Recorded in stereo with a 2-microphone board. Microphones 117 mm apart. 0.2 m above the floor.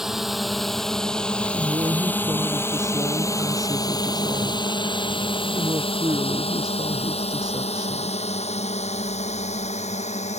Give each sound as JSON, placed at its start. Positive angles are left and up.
{"t": 0.0, "sound": "a drone", "side_deg": -5}
{"t": 1.5, "sound": "a woman speaking", "side_deg": -35}